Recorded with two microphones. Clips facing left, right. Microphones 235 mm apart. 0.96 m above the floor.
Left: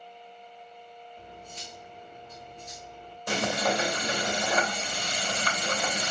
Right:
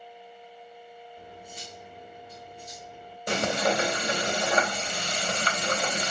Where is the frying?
25° right (ahead or behind), 2.5 m.